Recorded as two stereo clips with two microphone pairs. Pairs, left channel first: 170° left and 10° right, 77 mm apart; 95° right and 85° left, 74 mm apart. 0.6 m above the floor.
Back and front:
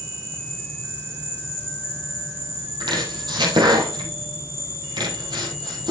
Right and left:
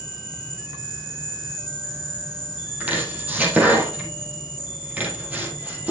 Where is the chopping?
15° left, 4 m.